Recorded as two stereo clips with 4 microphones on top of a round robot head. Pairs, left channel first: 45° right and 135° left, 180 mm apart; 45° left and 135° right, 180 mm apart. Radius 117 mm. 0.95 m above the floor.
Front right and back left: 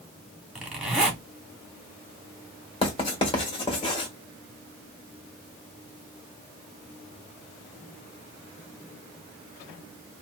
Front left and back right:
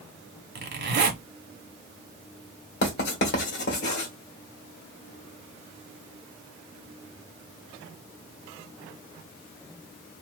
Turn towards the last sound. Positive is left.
turn(degrees=15)